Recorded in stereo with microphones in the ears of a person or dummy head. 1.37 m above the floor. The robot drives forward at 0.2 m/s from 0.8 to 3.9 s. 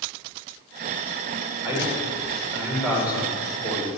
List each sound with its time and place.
1.6 s a man speaking: 10° right (ahead or behind), 4.5 m